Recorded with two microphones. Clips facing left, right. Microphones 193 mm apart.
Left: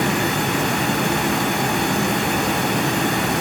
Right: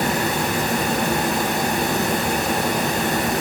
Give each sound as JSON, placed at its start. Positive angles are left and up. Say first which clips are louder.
{"t": 0.0, "sound": "running water", "louder": "left 1 dB", "side_deg": 70, "distance_m": 5.5}